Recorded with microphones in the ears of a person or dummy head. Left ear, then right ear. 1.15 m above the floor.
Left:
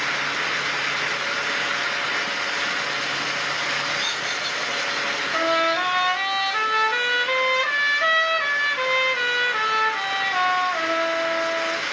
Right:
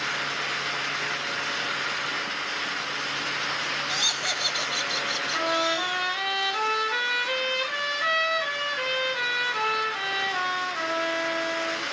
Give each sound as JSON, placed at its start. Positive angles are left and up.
{"t": 3.9, "sound": "laughter", "side_deg": -25, "distance_m": 8.0}
{"t": 5.3, "sound": "a trumpet", "side_deg": 35, "distance_m": 5.0}